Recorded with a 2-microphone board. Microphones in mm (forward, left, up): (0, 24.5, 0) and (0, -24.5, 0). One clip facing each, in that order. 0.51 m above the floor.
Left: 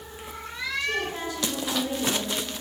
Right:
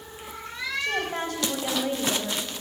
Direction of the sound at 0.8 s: 50° right (ahead or behind).